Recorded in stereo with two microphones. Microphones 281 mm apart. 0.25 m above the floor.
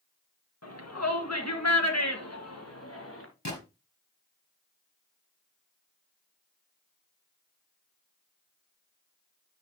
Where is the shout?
60° left (ahead or behind), 3 m; by 3.3 s 50° left (ahead or behind), 3.5 m.